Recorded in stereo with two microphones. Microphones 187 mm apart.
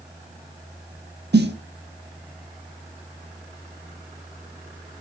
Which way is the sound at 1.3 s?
65° right (ahead or behind).